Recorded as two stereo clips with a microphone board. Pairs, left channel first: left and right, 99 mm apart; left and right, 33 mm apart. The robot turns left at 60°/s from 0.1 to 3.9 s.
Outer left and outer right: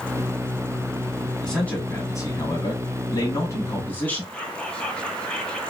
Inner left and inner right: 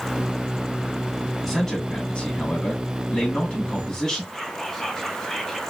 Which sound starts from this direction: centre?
Whispering, at 4.3 s.